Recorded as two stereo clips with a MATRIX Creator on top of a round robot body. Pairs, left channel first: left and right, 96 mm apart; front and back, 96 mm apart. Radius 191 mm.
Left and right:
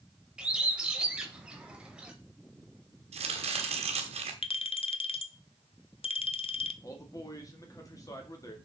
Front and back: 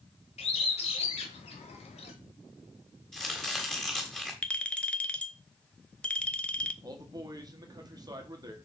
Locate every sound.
0.4 s a bird: 10° right, 0.7 m
3.1 s chopping: 85° right, 1.2 m
4.4 s a clink: 80° left, 0.8 m
6.8 s a man speaking: 140° left, 1.9 m